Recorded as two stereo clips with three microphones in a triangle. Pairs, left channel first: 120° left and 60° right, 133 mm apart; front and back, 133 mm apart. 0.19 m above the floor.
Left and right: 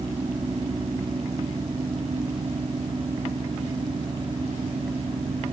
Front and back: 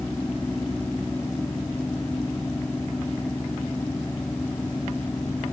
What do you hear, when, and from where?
Only background noise.